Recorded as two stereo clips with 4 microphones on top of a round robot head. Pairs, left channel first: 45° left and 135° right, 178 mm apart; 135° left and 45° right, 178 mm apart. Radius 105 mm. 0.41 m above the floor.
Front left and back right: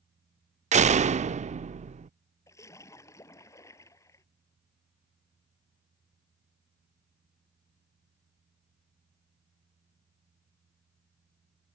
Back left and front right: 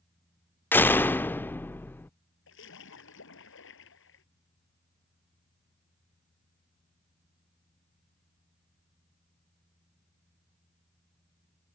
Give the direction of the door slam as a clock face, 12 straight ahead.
5 o'clock.